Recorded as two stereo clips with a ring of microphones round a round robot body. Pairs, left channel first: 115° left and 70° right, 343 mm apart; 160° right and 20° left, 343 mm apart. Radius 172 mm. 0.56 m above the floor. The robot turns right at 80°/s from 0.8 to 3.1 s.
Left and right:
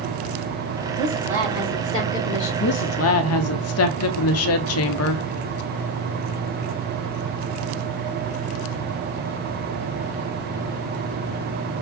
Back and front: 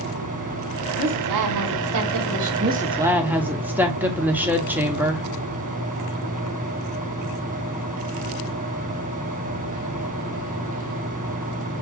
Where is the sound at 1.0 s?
30° right, 1.3 m; by 2.5 s 95° left, 1.3 m.